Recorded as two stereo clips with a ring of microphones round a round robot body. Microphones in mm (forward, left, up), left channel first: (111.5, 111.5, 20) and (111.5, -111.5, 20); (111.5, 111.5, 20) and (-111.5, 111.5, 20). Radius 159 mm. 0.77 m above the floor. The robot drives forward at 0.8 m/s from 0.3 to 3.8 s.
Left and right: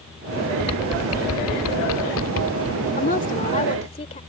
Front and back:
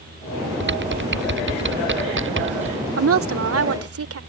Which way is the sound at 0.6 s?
140° left.